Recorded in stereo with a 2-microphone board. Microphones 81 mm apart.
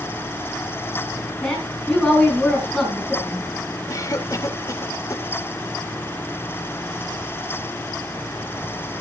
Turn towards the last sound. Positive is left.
turn(degrees=40)  # may be behind; listen again after turning